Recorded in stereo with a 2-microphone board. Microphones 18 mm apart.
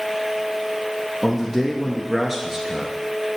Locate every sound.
1.2 s a man speaking: 15° right (ahead or behind), 1.4 m